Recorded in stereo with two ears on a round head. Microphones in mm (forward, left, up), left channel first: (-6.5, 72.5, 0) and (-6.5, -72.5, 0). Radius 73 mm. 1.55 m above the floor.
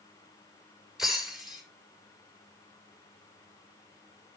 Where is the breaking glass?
Centre (ahead or behind), 6 m.